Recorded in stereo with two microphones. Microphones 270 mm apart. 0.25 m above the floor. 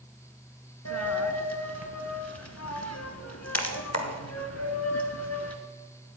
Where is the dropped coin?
70° left (ahead or behind), 1.3 m.